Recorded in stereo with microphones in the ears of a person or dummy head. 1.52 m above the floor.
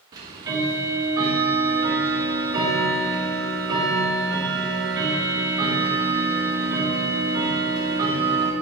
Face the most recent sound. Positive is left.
turn(degrees=-25)  # may be behind; listen again after turning